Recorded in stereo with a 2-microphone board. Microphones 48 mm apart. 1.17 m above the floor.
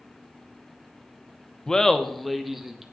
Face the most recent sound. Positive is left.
turn(degrees=-5)  # may be behind; listen again after turning